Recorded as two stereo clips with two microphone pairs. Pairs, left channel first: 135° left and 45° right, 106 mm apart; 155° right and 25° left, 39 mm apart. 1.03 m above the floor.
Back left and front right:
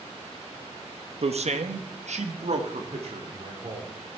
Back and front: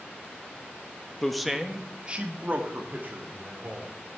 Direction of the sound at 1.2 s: 75° right.